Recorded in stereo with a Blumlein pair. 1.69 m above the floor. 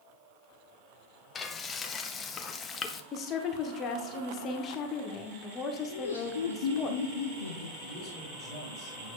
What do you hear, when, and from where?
1.4 s frying: 20° left, 0.7 m
3.1 s a woman speaking: 30° left, 1.1 m
5.9 s laughter: 65° left, 0.7 m
7.8 s a man speaking: 30° left, 2.5 m